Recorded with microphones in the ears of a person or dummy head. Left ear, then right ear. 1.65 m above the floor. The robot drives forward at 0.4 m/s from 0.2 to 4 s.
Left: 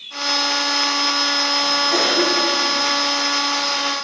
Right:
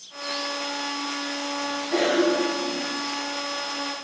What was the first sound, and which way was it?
A cough, 75° left (ahead or behind).